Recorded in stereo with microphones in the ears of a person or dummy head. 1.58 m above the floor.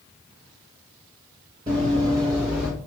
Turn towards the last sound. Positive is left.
turn(degrees=-5)  # may be behind; listen again after turning